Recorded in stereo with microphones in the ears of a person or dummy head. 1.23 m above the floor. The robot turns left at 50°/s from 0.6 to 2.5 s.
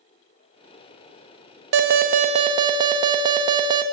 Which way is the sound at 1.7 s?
115° right.